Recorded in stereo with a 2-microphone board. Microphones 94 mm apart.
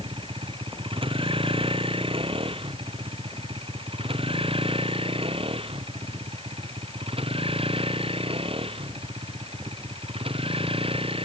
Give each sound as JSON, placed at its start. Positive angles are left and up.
{"t": 0.0, "sound": "a vehicle", "side_deg": -70}